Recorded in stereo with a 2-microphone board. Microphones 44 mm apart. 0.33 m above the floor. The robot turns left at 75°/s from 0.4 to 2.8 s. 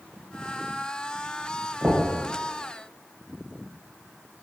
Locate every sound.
1.8 s knocking: 30° right (ahead or behind), 0.9 m; by 2.1 s 40° right (ahead or behind), 0.9 m